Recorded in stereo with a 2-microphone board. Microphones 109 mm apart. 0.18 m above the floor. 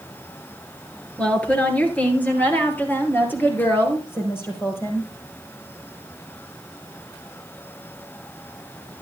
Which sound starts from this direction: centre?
A woman speaking, at 1.2 s.